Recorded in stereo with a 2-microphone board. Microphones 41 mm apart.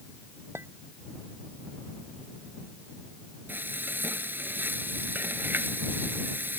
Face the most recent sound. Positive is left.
turn(degrees=-55)  # may be behind; listen again after turning